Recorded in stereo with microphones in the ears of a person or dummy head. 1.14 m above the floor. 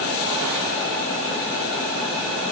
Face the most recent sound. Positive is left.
No sound to turn to.